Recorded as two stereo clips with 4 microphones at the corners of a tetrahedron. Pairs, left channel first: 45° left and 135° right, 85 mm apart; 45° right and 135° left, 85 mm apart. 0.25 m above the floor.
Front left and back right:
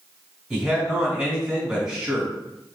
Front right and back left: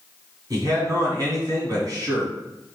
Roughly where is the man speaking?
Behind left.